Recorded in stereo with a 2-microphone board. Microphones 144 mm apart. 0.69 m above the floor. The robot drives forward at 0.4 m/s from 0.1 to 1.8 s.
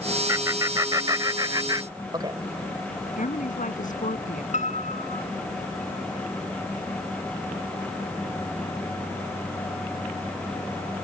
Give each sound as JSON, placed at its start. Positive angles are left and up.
{"t": 0.3, "sound": "laughter", "side_deg": -25}
{"t": 3.2, "sound": "a woman speaking", "side_deg": 65}
{"t": 4.5, "sound": "a piano", "side_deg": 55}